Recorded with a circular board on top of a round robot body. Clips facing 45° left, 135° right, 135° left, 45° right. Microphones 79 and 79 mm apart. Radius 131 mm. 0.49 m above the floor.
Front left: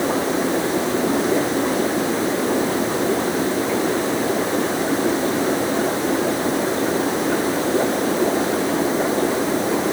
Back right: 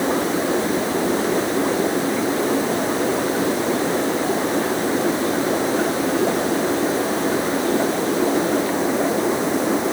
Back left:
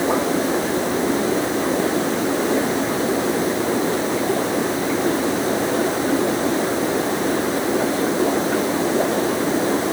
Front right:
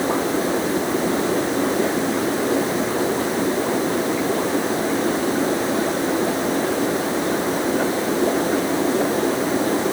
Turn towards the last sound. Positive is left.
No sound to turn to.